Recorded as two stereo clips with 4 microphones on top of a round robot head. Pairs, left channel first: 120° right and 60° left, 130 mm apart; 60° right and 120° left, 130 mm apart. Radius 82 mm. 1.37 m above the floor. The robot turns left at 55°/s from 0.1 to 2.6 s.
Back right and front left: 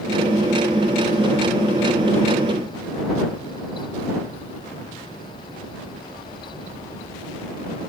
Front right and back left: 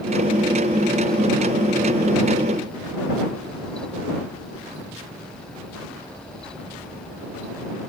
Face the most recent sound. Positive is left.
No sound to turn to.